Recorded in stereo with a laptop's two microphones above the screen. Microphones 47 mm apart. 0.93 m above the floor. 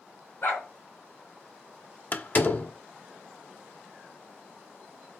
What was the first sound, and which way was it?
A dog barking, 60° left (ahead or behind).